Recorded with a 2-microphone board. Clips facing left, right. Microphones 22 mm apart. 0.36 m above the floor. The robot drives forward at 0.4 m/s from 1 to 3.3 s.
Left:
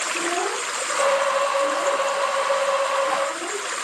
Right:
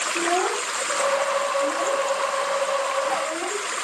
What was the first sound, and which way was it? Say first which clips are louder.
A child speaking: right 2 dB; 40° right (ahead or behind).